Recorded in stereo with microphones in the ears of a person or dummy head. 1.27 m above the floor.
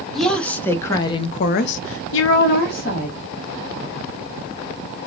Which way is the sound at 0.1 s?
5° left (ahead or behind).